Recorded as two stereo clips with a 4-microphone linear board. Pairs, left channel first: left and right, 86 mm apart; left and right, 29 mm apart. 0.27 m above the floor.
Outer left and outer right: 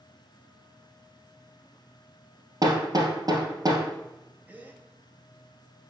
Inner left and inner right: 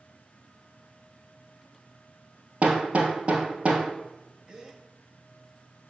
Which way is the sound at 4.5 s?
20° right (ahead or behind).